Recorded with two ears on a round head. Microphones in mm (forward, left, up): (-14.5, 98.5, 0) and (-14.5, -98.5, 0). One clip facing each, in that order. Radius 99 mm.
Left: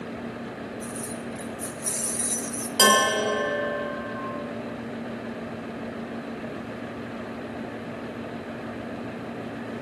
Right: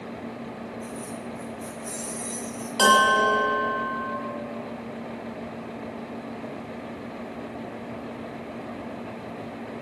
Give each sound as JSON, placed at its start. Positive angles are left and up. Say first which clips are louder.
{"t": 0.8, "sound": "keys jangling", "louder": "left 1 dB", "side_deg": 45, "distance_m": 2.0}
{"t": 2.8, "sound": "a bell", "louder": "even", "side_deg": 20, "distance_m": 1.5}